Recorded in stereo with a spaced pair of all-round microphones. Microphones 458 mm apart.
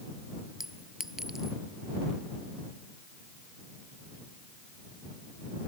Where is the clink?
Centre (ahead or behind).